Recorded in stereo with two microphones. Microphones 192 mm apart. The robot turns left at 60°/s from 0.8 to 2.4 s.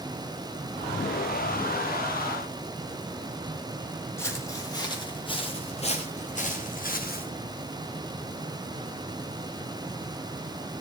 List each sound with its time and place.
4.2 s footsteps: 15° left (ahead or behind), 3.5 m; by 7.3 s 50° left (ahead or behind), 3.5 m